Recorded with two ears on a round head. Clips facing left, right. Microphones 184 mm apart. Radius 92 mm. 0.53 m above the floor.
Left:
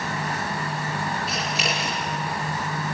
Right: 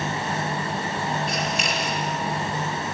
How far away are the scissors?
About 5.5 m.